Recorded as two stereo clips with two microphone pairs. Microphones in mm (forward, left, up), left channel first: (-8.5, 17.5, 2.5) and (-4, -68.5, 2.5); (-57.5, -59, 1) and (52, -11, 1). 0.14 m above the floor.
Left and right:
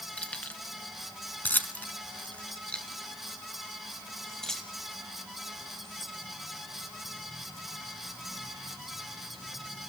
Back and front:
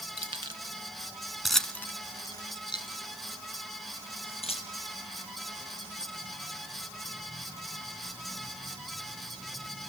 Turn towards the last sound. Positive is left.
turn(degrees=180)